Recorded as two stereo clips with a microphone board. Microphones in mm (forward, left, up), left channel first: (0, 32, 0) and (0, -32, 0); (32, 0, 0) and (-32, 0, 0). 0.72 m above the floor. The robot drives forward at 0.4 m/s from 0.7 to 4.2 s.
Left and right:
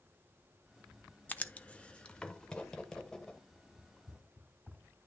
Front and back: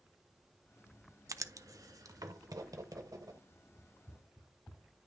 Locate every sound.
1.3 s writing: 155° left, 0.6 m; by 3.4 s 170° left, 1.4 m
3.8 s running footsteps: 55° right, 4 m; by 4.9 s 60° right, 4 m